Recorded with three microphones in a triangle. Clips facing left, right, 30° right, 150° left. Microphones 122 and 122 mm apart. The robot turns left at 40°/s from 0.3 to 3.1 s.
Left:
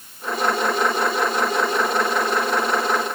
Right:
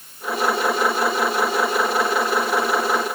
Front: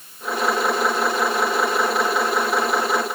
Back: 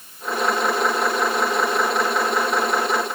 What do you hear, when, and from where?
Only background noise.